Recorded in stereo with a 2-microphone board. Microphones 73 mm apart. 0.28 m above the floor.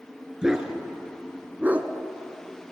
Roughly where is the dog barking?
Centre.